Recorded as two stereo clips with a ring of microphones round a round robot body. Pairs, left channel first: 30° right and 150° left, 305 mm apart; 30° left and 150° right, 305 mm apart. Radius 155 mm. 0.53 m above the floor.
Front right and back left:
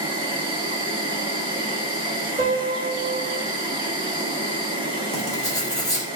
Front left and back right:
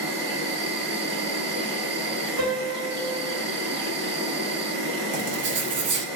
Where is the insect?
145° right, 1.5 m.